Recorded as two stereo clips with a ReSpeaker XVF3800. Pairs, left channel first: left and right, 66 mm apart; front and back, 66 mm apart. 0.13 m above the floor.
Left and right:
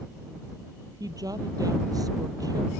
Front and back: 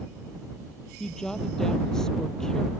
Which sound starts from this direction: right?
A woman speaking, at 1.0 s.